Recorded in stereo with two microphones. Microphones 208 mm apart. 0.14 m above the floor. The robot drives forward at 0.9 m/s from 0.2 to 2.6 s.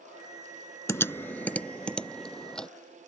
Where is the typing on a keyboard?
15° left (ahead or behind); by 2.7 s 5° left (ahead or behind).